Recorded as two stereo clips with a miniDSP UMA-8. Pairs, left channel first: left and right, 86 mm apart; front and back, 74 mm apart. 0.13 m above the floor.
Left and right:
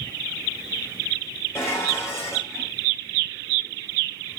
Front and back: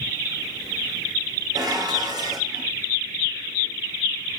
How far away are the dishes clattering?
About 4.5 m.